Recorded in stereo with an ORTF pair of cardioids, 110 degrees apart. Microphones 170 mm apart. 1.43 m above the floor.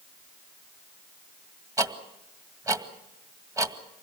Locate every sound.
1.8 s ticking: 20° right, 2 m